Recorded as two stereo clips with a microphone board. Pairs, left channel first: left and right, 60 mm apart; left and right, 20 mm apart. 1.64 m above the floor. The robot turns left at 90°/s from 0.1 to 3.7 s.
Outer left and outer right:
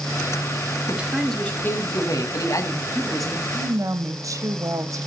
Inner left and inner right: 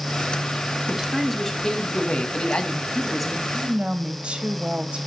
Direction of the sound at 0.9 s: 150° right.